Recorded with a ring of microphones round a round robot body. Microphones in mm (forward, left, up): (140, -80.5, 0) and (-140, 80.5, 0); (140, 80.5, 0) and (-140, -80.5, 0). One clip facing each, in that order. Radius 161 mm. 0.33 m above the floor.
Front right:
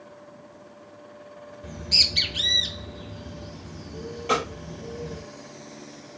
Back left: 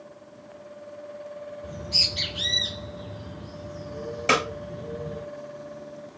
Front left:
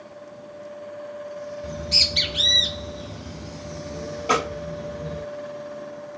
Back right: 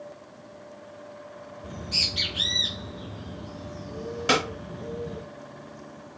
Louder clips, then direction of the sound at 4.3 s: Back left 1 dB, front left 1 dB; 170° left.